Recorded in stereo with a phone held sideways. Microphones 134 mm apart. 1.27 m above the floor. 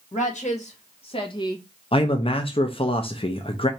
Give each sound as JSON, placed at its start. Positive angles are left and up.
{"t": 0.1, "sound": "a woman speaking", "side_deg": 65, "distance_m": 1.8}
{"t": 1.9, "sound": "a man speaking", "side_deg": 45, "distance_m": 0.7}